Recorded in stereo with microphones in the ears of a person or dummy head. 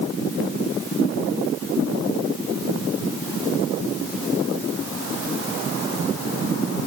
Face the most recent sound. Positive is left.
No sound to turn to.